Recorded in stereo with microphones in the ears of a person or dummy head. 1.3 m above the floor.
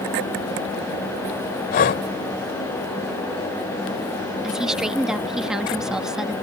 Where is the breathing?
35° left (ahead or behind).